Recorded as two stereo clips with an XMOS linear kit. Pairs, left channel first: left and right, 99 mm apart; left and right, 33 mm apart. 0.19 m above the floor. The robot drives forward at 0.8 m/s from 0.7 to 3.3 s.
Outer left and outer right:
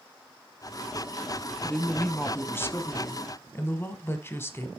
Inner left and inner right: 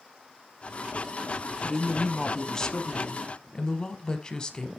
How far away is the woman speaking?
About 1.5 m.